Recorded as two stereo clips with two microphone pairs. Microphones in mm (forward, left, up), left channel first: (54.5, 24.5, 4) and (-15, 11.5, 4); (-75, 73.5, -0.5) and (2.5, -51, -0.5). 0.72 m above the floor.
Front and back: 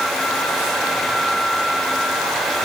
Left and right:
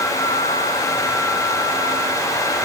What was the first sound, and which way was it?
Only background noise.